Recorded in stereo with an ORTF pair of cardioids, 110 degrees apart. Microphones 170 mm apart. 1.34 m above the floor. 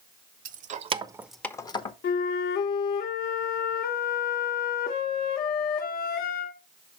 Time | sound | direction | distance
0.5 | keys jangling | 65° right | 0.8 m
2.0 | a flute | 65° left | 0.8 m